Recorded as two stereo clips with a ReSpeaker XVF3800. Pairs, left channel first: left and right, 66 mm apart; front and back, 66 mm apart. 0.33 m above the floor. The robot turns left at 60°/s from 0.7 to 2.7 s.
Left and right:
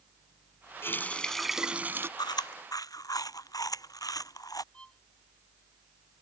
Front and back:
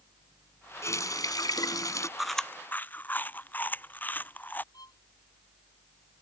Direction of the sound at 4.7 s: 15° left.